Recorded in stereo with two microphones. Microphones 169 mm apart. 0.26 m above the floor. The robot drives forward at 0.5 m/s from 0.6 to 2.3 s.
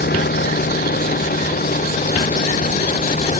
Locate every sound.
0.0 s a vehicle: 70° left (ahead or behind); by 3.4 s 45° left (ahead or behind)